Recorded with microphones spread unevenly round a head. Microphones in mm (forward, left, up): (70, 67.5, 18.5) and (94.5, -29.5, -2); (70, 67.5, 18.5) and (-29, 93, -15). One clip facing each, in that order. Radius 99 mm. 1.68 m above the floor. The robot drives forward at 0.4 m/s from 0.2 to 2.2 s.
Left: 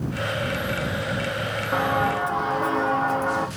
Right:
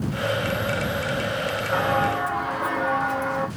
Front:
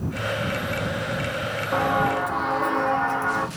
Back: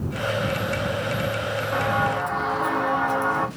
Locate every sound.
1.7 s footsteps: 40° left, 3 m; by 3.5 s 90° left, 3 m